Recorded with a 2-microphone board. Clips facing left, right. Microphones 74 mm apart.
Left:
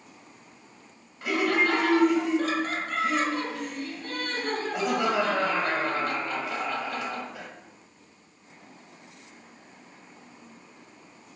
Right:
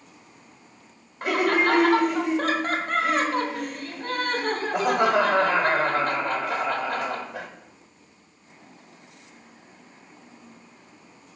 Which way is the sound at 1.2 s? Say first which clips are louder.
Right 3 dB; 50° right (ahead or behind).